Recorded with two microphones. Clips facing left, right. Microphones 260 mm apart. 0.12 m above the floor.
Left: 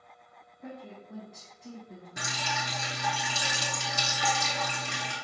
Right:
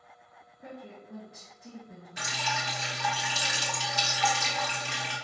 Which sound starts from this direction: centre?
A woman speaking, at 0.6 s.